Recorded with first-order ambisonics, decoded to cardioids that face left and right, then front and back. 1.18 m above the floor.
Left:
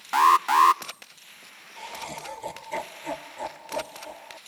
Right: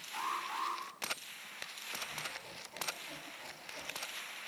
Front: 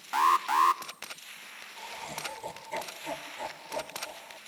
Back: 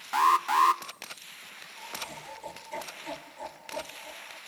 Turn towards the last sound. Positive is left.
turn(degrees=80)